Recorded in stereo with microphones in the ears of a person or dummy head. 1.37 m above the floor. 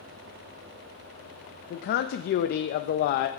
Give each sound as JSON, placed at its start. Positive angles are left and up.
{"t": 1.7, "sound": "a man speaking", "side_deg": 60, "distance_m": 0.6}